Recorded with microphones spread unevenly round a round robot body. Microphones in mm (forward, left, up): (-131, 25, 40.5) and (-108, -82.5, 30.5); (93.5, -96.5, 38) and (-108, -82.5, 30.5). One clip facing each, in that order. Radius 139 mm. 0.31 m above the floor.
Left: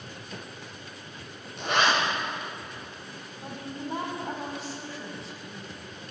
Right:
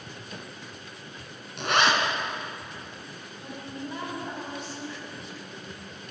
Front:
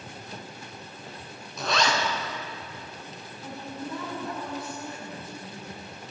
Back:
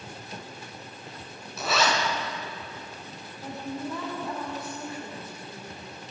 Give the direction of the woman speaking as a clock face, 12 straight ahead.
7 o'clock.